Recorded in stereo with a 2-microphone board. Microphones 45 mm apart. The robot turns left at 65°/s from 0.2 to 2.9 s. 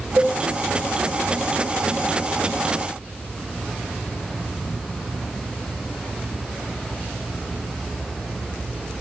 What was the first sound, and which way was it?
A cowbell, 35° right (ahead or behind).